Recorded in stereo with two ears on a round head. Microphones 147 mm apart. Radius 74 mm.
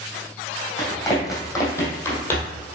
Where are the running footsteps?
20° left (ahead or behind), 3 m; by 2.6 s 10° left (ahead or behind), 1.7 m.